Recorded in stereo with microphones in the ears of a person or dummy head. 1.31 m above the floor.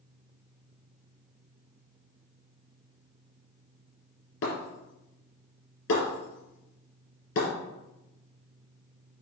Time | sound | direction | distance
4.4 | breaking glass | 70° left (ahead or behind) | 3.5 m